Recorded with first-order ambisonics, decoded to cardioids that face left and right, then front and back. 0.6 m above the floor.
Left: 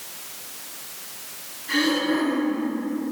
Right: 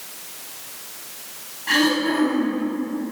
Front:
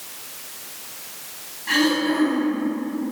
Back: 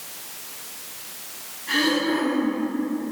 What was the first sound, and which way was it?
Throat clearing, 65° right.